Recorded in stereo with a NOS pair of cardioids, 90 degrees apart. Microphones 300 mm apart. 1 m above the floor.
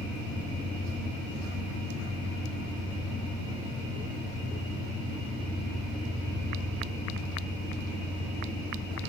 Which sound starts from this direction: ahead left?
An engine running, at 0.0 s.